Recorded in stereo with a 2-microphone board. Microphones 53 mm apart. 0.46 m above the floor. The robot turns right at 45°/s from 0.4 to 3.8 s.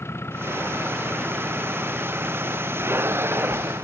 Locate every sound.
0.0 s an engine running: 130° left; by 3.9 s 80° right